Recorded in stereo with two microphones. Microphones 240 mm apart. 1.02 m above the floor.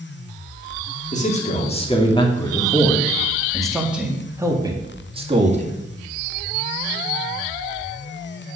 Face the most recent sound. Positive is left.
turn(degrees=-30)  # may be behind; listen again after turning